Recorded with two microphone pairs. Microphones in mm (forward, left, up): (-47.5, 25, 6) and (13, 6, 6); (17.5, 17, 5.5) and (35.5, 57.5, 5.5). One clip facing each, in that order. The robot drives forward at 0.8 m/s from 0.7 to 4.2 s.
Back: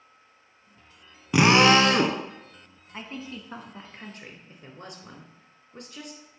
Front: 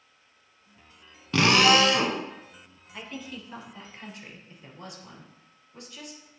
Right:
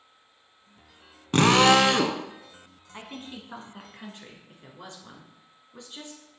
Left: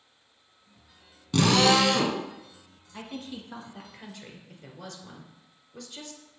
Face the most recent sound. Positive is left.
turn(degrees=-175)